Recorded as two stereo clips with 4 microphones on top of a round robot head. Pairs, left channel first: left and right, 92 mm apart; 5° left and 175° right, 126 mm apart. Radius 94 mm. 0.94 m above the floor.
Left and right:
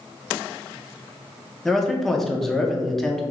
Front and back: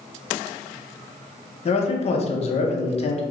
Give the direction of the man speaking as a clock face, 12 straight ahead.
12 o'clock.